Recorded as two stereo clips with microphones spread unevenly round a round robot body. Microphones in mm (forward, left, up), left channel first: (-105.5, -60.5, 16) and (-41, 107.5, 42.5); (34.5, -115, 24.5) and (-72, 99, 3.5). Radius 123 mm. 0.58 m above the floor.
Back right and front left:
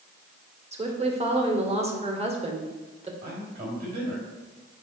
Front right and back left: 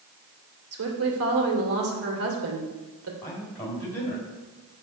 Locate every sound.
0.7 s a woman speaking: 125° left, 2.5 m
3.2 s a man speaking: 20° left, 3 m